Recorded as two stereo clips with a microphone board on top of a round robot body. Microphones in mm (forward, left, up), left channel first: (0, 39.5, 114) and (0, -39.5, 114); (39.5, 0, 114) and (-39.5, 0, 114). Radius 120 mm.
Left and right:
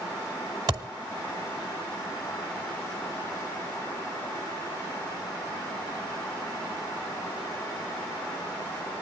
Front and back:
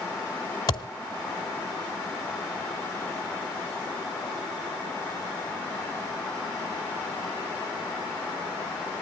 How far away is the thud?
About 1.7 m.